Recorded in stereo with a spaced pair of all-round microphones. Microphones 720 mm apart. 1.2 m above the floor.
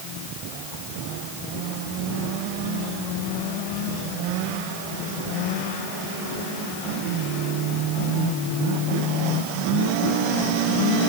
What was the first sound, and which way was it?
Only background noise.